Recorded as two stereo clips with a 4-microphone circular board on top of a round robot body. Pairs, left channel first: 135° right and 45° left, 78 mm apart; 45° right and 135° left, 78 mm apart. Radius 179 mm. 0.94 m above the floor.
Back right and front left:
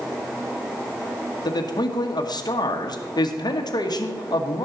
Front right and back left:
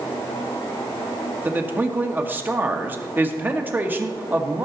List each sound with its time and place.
1.4 s a man speaking: 160° right, 1.5 m